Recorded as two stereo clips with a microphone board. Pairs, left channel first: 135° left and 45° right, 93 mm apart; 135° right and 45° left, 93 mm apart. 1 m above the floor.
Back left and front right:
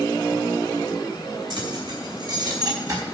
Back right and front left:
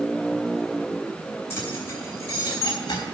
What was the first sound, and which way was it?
Keys jangling, 70° right.